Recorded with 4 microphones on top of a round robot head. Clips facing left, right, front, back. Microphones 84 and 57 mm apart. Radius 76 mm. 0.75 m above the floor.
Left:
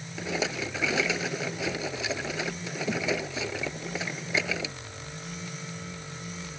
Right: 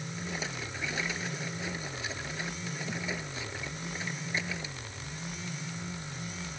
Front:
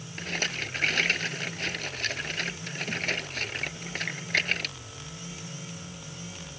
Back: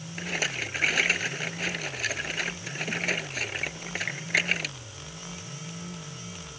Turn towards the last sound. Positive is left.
turn(degrees=100)